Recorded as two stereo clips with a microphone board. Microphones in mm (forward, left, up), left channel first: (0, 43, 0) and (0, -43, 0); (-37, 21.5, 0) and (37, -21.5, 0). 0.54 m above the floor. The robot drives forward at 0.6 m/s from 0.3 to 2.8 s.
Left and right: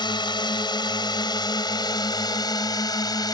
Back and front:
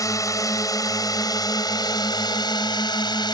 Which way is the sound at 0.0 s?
105° left.